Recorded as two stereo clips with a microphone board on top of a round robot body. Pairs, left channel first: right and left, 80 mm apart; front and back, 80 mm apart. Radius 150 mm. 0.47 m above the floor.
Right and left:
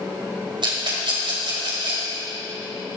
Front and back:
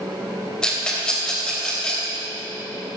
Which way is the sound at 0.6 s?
80° left.